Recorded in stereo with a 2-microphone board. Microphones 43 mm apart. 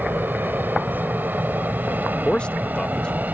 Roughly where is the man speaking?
Left.